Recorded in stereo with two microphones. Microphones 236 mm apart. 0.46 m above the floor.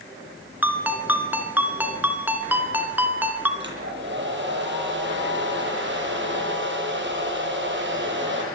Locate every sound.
0.6 s a ringtone: 10° right (ahead or behind), 2.5 m
3.6 s a hair dryer: 55° right (ahead or behind), 9 m